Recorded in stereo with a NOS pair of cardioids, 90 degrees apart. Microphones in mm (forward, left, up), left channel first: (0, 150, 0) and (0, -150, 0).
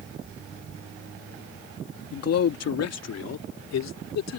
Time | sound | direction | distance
2.1 | a man speaking | 55° left | ?